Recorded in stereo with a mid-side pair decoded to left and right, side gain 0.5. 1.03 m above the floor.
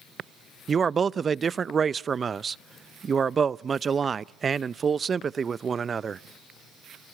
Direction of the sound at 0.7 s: 35° right.